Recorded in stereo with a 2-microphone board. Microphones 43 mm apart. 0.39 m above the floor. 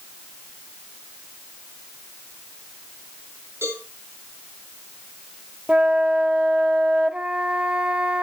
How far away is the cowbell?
About 7 m.